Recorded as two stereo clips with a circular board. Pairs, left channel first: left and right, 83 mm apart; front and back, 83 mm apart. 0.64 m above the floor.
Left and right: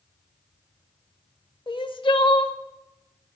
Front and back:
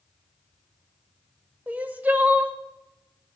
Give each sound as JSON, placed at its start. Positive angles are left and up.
{"t": 1.7, "sound": "crying", "azimuth_deg": 110, "distance_m": 0.7}